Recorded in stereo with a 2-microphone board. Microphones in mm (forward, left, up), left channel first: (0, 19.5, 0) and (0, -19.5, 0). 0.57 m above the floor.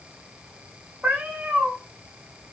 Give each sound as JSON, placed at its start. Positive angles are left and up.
{"t": 1.0, "sound": "a cat meowing", "side_deg": -40, "distance_m": 0.8}